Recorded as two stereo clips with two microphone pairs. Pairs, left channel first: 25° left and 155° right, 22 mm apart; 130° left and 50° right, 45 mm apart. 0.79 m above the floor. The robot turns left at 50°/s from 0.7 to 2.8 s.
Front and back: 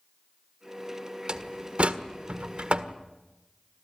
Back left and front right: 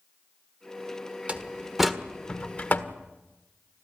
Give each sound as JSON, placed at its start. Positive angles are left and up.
{"t": 1.3, "sound": "a door slam", "azimuth_deg": -105, "distance_m": 1.5}